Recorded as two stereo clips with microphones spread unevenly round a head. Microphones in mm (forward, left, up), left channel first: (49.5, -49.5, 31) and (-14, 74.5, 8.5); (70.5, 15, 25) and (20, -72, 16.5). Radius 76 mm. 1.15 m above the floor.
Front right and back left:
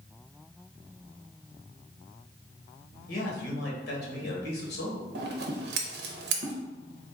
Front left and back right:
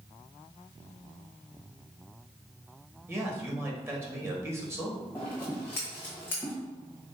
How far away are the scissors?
About 0.7 m.